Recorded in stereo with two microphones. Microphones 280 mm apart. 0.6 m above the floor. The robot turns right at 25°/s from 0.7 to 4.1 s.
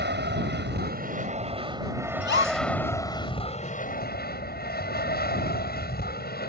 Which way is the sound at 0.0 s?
45° right.